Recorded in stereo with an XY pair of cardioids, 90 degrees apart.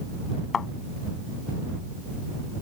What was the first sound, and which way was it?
A thud, 45° left.